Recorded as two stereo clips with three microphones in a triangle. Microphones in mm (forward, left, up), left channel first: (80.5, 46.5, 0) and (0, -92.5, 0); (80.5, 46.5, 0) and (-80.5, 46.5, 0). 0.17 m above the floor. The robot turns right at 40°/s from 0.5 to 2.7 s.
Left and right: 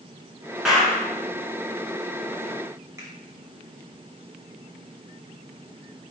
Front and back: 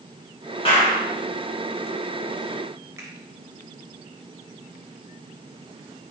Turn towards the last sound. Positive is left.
turn(degrees=-150)